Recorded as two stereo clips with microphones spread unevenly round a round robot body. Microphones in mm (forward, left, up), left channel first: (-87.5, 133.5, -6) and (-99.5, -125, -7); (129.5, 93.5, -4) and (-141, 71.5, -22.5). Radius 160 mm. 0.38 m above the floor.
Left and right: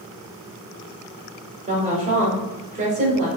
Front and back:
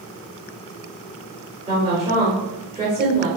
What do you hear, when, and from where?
1.7 s a woman speaking: 115° right, 1.5 m